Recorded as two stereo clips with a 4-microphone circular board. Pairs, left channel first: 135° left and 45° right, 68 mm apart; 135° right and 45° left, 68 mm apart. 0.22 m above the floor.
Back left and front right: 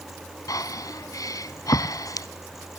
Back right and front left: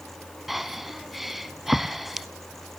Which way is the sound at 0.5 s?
130° left.